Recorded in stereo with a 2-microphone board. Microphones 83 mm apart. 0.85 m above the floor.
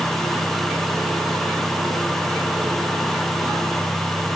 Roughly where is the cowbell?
I don't hear a cowbell.